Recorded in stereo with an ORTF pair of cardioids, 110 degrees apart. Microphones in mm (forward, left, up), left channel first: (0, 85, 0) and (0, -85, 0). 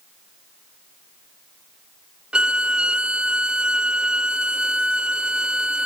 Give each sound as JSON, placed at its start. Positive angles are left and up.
{"t": 2.3, "sound": "a violin", "azimuth_deg": -5, "distance_m": 1.0}